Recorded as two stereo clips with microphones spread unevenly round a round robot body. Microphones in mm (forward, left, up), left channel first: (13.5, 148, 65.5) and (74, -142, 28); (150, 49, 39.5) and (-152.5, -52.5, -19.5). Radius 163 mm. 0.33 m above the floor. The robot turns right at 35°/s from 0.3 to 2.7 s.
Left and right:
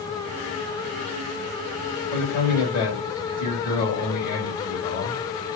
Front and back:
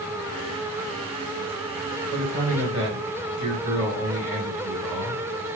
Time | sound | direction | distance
2.1 | a man speaking | 140° left | 1.8 m